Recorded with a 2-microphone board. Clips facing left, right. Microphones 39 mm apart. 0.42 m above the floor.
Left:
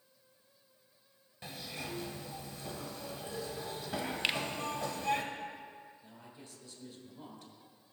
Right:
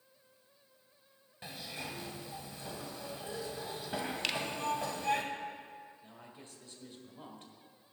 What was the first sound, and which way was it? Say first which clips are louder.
A zipper: even; 10° right (ahead or behind).